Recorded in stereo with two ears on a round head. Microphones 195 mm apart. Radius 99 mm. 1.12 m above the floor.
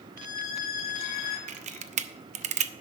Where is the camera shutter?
35° right (ahead or behind), 0.6 m.